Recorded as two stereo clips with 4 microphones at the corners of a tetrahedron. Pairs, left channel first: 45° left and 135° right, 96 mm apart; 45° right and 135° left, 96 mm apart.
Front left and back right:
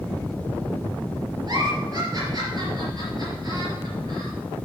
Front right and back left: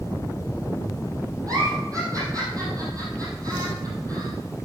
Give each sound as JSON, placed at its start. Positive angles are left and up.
{"t": 1.5, "sound": "a giggle", "azimuth_deg": 180, "distance_m": 4.0}